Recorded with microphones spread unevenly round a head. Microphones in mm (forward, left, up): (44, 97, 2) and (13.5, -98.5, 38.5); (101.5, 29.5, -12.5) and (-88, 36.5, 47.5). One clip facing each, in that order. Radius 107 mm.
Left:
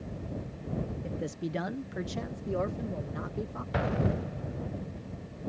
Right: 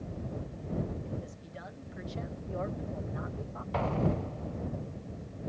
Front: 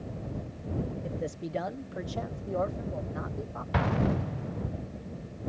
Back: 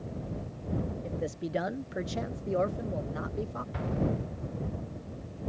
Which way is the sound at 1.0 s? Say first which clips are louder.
Left 7 dB, back 1 dB; 80° left.